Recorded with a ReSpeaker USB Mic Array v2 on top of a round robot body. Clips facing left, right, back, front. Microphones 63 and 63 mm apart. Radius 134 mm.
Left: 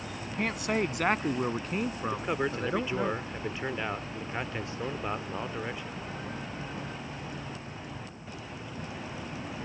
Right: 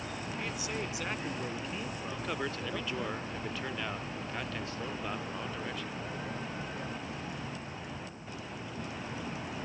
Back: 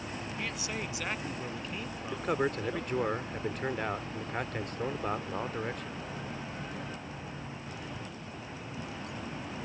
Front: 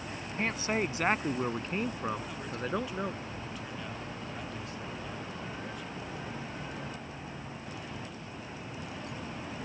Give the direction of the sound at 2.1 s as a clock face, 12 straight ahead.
7 o'clock.